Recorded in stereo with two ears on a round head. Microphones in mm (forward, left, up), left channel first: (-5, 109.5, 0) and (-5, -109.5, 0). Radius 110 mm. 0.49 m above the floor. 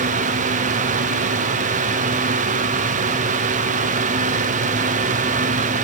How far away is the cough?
I don't hear a cough.